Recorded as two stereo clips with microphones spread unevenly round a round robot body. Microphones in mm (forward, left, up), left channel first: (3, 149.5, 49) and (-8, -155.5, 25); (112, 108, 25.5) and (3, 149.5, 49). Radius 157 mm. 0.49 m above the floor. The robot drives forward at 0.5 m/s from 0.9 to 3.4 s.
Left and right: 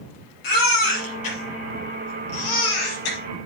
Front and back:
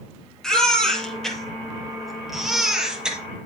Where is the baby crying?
65° left, 5.5 m; by 3.2 s 75° left, 5 m.